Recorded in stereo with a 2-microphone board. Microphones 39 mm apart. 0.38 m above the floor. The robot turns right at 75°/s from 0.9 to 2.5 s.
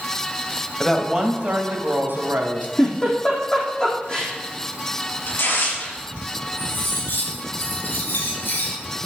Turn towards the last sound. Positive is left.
turn(degrees=55)  # may be behind; listen again after turning